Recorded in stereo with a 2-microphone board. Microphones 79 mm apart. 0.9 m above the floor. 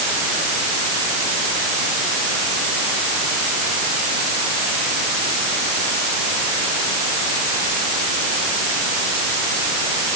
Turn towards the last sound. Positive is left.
No sound to turn to.